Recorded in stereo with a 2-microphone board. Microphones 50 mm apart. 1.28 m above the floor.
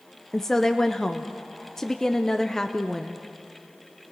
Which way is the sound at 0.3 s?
10° left (ahead or behind).